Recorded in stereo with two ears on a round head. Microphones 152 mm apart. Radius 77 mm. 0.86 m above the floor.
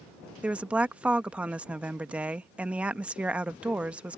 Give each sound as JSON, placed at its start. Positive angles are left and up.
{"t": 0.4, "sound": "a woman speaking", "side_deg": -5}